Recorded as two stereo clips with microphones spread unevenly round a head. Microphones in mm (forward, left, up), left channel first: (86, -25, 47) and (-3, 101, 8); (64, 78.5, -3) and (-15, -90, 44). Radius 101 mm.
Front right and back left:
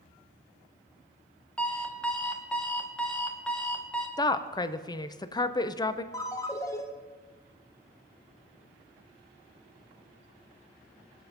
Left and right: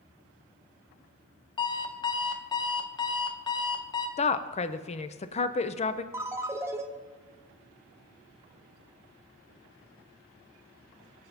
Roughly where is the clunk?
I don't hear a clunk.